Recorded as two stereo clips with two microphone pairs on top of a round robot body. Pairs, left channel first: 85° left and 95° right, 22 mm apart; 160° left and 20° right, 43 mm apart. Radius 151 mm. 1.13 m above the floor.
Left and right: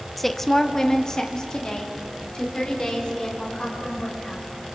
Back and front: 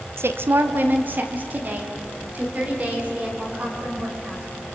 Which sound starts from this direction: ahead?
A woman speaking, at 0.2 s.